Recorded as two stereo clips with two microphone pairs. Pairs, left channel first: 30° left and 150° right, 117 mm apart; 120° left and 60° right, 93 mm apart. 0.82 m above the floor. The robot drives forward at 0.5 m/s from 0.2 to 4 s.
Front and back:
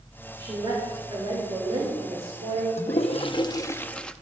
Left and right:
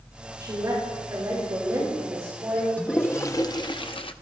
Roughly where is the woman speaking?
Right.